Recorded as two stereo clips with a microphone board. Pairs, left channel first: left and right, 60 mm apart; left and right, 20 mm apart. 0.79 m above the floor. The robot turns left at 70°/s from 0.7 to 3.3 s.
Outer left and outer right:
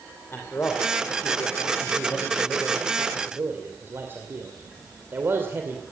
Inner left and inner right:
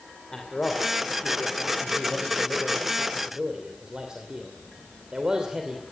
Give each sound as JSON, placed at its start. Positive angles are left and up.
{"t": 0.3, "sound": "a man speaking", "side_deg": 40, "distance_m": 2.5}